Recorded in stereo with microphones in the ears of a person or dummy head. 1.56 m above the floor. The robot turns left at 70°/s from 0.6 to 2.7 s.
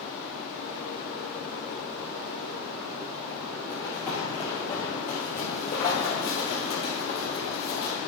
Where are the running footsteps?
15° left (ahead or behind), 2 m; by 7.9 s 60° left (ahead or behind), 3 m.